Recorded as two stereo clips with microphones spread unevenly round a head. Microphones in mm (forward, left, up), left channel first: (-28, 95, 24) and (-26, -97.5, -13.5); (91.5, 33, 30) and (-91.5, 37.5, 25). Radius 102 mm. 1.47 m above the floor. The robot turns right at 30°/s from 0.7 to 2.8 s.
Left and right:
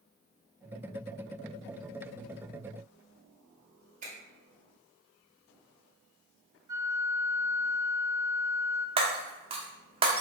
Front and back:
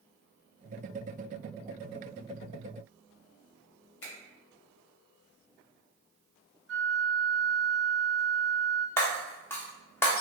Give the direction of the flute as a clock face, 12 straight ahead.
6 o'clock.